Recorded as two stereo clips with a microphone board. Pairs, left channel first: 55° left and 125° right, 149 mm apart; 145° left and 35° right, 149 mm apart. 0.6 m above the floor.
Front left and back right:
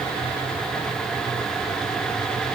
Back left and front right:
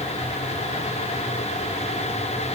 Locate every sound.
Only background noise.